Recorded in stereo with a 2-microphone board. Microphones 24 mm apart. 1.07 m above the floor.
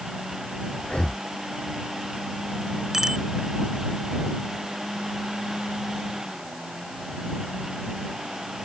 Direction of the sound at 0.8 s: 40° left (ahead or behind).